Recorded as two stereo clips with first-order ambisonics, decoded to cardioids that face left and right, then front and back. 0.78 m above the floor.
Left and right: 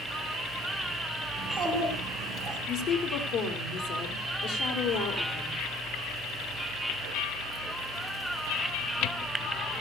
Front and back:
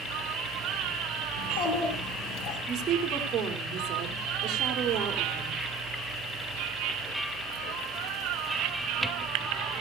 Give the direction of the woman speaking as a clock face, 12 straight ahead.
8 o'clock.